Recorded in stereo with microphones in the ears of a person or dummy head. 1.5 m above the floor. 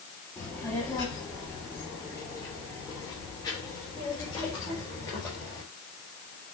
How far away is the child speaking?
About 2.5 m.